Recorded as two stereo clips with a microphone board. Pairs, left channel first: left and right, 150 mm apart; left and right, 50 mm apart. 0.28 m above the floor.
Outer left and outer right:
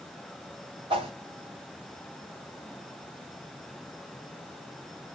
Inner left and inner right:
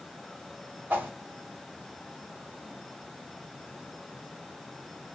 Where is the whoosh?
40° right (ahead or behind), 2.5 m.